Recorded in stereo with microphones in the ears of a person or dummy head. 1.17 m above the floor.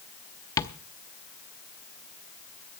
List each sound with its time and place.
0.6 s tapping: 20° left (ahead or behind), 0.7 m